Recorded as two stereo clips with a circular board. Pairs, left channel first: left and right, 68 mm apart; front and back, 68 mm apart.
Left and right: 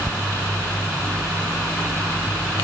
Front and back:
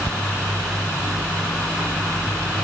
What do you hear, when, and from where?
Only background noise.